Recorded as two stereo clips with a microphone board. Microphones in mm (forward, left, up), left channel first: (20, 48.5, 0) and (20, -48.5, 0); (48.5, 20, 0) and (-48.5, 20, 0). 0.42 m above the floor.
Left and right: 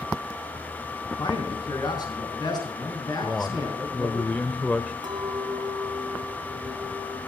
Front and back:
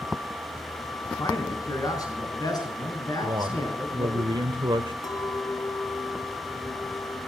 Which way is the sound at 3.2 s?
160° left.